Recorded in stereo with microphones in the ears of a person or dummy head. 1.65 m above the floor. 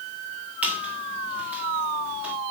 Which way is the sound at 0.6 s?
5° right (ahead or behind).